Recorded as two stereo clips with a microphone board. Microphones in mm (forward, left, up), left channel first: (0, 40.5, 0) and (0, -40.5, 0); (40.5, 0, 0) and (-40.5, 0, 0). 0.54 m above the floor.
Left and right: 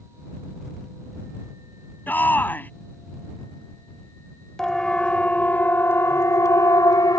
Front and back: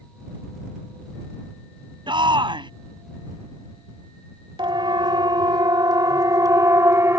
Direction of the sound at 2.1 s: 160° left.